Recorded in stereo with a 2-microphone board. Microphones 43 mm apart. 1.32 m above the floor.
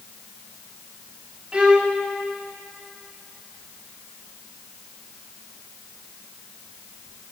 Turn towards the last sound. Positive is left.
turn(degrees=-30)  # may be behind; listen again after turning